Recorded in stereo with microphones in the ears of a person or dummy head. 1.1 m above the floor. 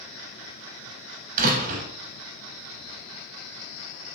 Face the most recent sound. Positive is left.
turn(degrees=-50)  # may be behind; listen again after turning